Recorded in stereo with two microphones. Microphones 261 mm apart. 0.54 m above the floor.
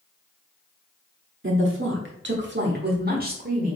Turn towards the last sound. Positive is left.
turn(degrees=-30)  # may be behind; listen again after turning